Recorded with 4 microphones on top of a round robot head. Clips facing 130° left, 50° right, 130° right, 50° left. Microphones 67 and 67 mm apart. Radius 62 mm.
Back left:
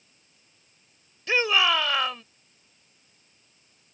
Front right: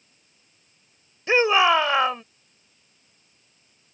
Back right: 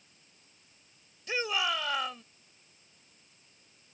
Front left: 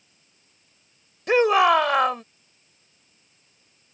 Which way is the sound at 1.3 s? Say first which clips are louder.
Front right 5 dB, front left 15 dB; 15° left.